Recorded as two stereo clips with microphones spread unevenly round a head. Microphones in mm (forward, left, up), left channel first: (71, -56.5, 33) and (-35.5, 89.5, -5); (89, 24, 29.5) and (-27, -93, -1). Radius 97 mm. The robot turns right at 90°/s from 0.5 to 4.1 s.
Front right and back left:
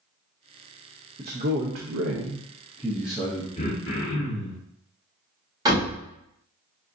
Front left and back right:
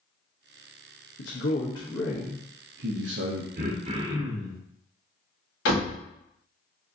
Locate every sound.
1.2 s a man speaking: 60° left, 0.7 m; by 3.5 s 95° right, 0.7 m
3.6 s throat clearing: 115° right, 1.0 m; by 4.6 s 65° right, 1.0 m
5.7 s a door slam: 55° left, 1.8 m